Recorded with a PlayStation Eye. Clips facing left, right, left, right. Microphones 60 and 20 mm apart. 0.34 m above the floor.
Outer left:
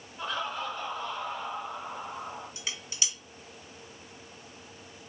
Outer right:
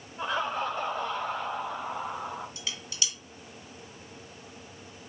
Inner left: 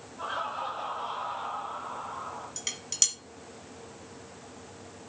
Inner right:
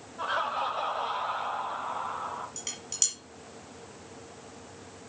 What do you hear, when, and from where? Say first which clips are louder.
0.2 s laughter: outer right 4 dB, inner right 4 dB; 20° right (ahead or behind), 1.2 m; by 2.5 s 60° right (ahead or behind), 3 m
2.6 s dishes clattering: outer right 1 dB, inner left 8 dB; 20° left (ahead or behind), 2 m